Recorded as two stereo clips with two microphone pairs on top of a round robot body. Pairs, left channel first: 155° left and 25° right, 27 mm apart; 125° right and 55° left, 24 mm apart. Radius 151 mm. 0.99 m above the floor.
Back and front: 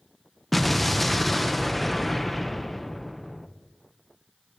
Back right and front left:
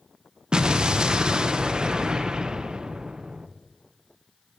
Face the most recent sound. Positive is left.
turn(degrees=90)